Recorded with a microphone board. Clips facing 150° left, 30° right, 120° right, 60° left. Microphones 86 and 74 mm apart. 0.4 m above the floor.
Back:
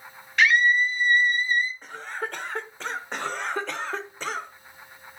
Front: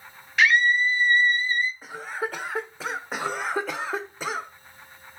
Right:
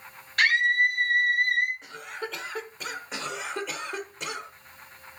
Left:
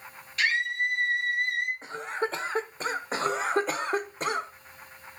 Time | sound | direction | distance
0.4 | a scream | 115° right | 2 m
1.8 | a cough | 45° left | 1.2 m
3.1 | a cough | 45° left | 1.2 m